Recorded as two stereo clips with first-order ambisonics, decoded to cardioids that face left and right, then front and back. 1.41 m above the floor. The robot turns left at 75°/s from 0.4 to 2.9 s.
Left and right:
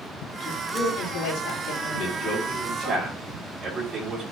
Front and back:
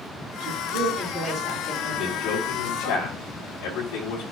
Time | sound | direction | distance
0.4 | a woman speaking | 155° left | 5 m
1.9 | a man speaking | 55° left | 5 m